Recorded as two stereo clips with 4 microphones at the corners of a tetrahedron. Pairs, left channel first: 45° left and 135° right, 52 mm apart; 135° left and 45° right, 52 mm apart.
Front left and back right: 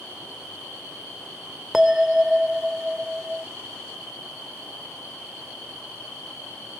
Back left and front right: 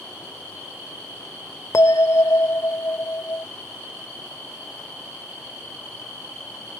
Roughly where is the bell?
Behind left.